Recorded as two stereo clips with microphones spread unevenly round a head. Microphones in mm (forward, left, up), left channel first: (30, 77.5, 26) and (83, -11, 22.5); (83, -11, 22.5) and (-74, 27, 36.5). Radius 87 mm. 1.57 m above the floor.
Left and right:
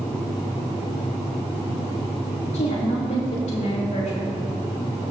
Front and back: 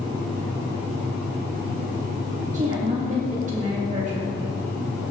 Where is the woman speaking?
120° left, 3 m.